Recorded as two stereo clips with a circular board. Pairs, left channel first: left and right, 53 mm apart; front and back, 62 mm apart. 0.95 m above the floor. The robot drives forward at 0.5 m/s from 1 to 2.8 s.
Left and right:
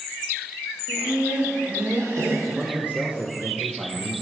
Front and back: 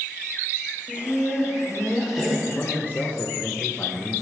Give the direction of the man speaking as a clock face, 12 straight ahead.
1 o'clock.